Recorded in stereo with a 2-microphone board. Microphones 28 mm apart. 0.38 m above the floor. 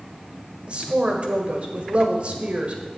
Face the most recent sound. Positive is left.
turn(degrees=-40)  # may be behind; listen again after turning